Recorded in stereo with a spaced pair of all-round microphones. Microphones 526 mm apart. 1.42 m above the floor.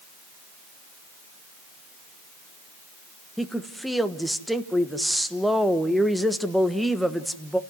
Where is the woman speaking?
Centre (ahead or behind), 1.3 m.